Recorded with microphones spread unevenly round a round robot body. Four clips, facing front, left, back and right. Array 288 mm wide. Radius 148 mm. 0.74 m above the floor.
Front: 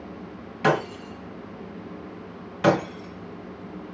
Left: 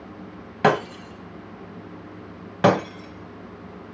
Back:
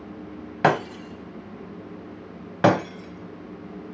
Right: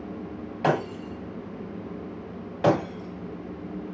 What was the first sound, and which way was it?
Breaking glass, 120° left.